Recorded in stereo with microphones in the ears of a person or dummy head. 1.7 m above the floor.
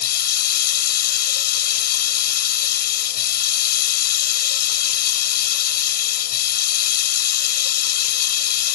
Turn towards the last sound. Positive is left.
turn(degrees=60)  # may be behind; listen again after turning